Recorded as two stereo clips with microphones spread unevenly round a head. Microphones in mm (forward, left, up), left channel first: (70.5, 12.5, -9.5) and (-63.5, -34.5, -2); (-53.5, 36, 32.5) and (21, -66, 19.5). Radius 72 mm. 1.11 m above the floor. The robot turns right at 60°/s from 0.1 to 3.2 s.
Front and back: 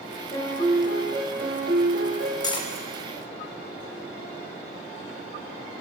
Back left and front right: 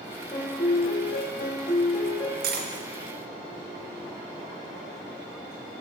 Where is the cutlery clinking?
40° right, 0.7 m; by 2.7 s 25° right, 0.7 m.